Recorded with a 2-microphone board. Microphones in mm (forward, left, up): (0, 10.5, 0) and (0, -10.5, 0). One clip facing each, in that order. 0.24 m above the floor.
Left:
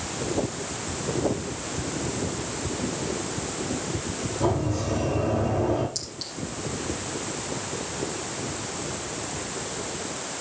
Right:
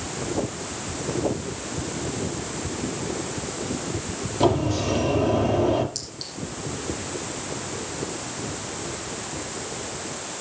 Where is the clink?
5° right (ahead or behind), 6.5 m.